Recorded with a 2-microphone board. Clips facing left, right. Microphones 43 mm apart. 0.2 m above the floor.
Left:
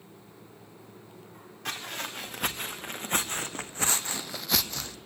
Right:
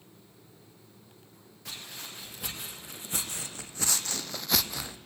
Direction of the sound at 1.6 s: 75° left (ahead or behind).